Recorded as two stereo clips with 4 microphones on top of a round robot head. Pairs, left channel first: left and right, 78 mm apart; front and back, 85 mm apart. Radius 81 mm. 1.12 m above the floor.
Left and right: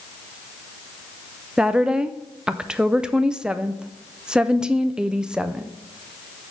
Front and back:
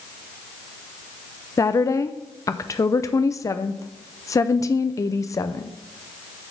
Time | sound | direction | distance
1.6 | a woman speaking | 15° right | 0.5 m